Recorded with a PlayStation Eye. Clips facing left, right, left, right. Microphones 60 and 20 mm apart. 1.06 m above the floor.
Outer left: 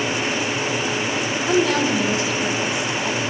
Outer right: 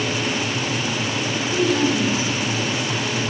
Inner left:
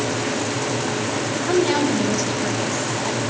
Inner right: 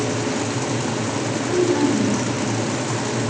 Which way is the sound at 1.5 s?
75° left (ahead or behind).